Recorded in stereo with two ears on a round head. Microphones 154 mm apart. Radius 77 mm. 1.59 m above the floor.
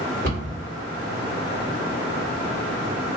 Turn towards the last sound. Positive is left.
turn(degrees=-55)  # may be behind; listen again after turning